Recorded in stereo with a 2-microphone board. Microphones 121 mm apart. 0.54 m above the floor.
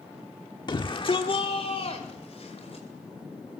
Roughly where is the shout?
Left.